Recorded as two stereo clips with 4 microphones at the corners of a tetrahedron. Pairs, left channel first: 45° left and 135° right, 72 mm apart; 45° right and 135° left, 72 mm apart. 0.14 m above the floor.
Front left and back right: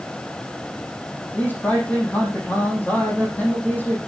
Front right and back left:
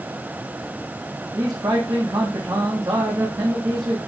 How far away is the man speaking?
About 6 m.